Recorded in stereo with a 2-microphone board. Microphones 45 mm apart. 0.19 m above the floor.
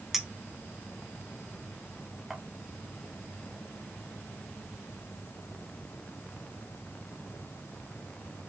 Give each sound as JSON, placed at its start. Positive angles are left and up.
{"t": 0.1, "sound": "a clink", "side_deg": -5, "distance_m": 0.8}